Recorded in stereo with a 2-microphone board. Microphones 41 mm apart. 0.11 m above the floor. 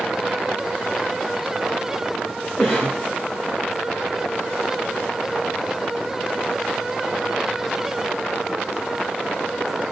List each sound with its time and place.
2.6 s a cough: 35° left (ahead or behind), 2.5 m